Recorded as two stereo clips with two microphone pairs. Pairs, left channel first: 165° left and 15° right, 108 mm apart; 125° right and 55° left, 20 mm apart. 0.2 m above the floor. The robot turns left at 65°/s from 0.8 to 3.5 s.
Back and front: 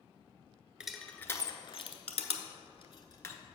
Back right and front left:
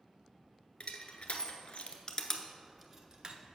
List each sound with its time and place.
0.8 s crushing: 100° right, 0.7 m; by 3.4 s 95° left, 0.7 m